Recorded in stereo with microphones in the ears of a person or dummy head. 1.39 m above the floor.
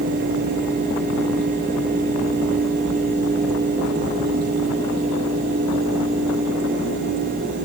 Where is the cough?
No cough in this recording.